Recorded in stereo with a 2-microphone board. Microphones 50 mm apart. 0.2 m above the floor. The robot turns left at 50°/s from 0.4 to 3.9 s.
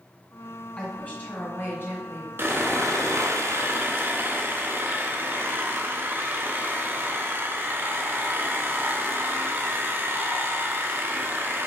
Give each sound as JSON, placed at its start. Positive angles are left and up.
{"t": 0.8, "sound": "a woman speaking", "azimuth_deg": 140, "distance_m": 1.9}
{"t": 2.4, "sound": "sawing", "azimuth_deg": -55, "distance_m": 0.6}